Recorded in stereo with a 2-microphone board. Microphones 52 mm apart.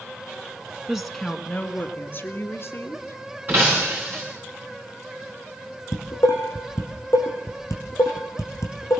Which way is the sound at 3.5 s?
35° right (ahead or behind).